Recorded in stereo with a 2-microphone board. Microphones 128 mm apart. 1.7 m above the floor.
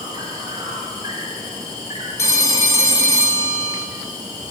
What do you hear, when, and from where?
0.0 s an insect: 30° right (ahead or behind), 8.5 m
2.2 s a phone ringing: 20° left (ahead or behind), 3.5 m